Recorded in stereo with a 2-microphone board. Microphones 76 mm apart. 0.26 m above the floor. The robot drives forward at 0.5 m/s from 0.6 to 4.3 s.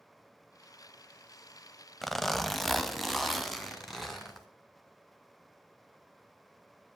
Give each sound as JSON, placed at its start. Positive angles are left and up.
{"t": 2.0, "sound": "a zipper", "side_deg": 5, "distance_m": 0.5}